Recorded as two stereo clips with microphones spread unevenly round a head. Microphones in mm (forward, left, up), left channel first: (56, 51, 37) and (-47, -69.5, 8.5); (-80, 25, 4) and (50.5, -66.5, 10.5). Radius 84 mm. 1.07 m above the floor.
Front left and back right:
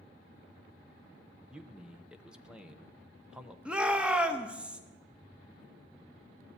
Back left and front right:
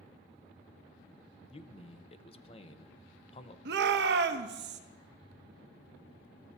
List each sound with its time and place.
1.5 s a man speaking: 160° left, 0.8 m
3.6 s a shout: 50° right, 1.0 m